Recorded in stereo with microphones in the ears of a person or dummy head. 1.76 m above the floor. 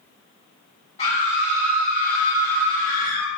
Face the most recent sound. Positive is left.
turn(degrees=40)  # may be behind; listen again after turning